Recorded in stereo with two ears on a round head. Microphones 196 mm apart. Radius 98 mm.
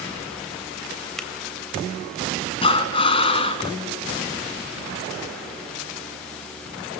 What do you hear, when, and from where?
1.2 s a finger snap: centre (ahead or behind), 2.5 m
2.6 s breathing: 25° left (ahead or behind), 2 m